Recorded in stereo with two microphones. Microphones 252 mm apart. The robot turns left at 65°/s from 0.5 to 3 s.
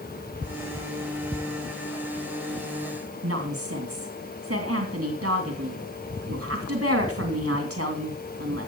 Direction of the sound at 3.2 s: 60° right (ahead or behind).